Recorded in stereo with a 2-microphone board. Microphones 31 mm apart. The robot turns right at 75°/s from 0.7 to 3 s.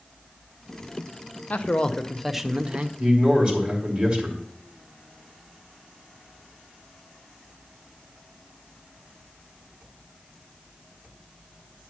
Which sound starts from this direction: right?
A man speaking, at 3.0 s.